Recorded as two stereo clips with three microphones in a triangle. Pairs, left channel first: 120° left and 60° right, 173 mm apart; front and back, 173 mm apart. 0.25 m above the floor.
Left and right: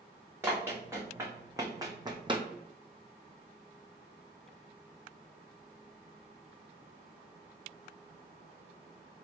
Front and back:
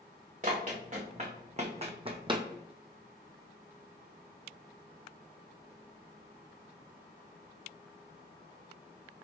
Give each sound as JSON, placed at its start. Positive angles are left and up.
{"t": 0.4, "sound": "running footsteps", "azimuth_deg": -135, "distance_m": 1.7}